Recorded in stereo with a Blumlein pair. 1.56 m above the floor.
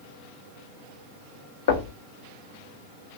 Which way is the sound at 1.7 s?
55° left.